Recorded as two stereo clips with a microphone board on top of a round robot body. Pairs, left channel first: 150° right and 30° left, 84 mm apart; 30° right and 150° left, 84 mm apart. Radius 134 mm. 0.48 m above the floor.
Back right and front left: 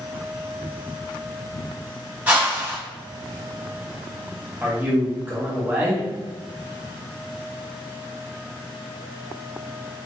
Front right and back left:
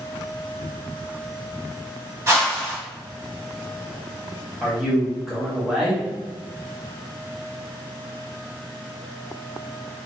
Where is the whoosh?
100° left, 1.1 m.